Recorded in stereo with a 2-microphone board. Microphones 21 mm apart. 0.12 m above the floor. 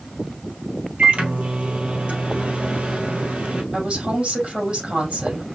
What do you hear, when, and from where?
1.0 s a microwave: 65° right (ahead or behind), 1.9 m
3.7 s a woman speaking: 60° right (ahead or behind), 4 m